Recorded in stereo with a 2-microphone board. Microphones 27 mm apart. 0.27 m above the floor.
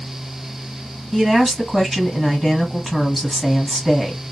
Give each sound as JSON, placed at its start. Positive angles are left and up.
{"t": 1.1, "sound": "a woman speaking", "side_deg": -5, "distance_m": 1.8}